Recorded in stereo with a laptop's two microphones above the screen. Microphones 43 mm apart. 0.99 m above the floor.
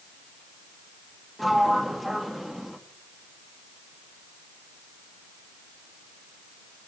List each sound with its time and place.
1.4 s a sliding door: centre (ahead or behind), 1.8 m